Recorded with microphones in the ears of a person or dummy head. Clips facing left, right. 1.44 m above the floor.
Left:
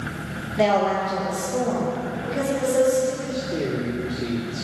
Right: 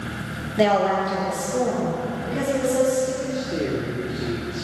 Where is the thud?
I don't hear a thud.